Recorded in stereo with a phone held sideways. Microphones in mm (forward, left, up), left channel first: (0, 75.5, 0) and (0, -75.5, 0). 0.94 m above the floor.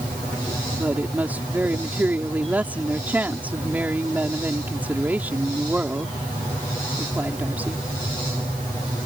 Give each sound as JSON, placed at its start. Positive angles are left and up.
{"t": 0.7, "sound": "a woman speaking", "side_deg": -10}